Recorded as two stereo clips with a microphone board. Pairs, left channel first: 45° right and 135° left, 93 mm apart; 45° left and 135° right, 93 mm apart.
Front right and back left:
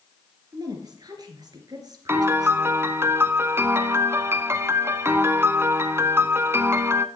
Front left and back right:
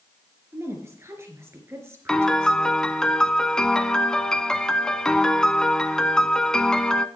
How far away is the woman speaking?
About 2.5 m.